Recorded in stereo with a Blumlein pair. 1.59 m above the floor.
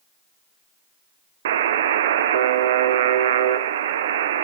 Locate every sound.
1.4 s a buzzer: 60° right, 0.8 m